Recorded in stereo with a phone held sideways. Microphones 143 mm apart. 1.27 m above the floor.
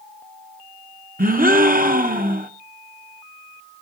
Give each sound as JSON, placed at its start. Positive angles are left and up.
{"t": 1.2, "sound": "a gasp", "side_deg": -75, "distance_m": 0.8}